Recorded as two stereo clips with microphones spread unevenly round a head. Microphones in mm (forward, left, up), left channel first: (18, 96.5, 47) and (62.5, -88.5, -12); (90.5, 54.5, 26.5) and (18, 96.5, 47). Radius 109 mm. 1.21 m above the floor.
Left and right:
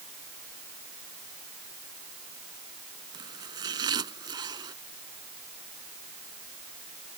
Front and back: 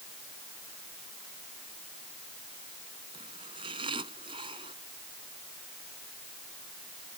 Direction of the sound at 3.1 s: 150° right.